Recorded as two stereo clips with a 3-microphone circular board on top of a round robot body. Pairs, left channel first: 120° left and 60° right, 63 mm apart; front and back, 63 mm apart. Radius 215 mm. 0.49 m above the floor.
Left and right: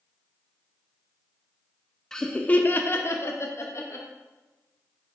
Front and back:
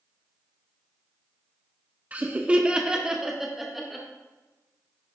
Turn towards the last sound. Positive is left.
turn(degrees=90)